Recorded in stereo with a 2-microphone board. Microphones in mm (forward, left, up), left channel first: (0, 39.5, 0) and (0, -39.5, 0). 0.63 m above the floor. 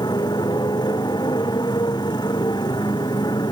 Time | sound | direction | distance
0.0 | a motorcycle | 65° left (ahead or behind) | ?